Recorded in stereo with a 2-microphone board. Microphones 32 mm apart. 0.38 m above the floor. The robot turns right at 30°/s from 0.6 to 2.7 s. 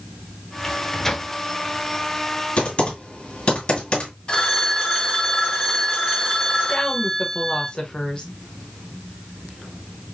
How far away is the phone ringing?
About 1.7 m.